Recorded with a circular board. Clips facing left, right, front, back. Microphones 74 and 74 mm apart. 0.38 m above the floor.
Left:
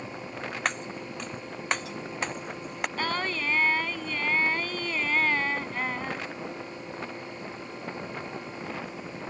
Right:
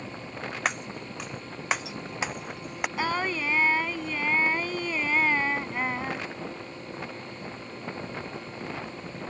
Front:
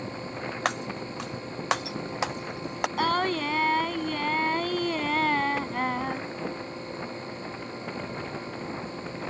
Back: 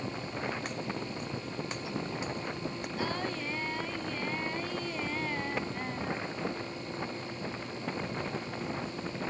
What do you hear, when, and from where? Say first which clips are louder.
0.7 s breaking glass: right 1 dB, front 6 dB; 5° right
3.0 s singing: right 2 dB, front 9 dB; 10° right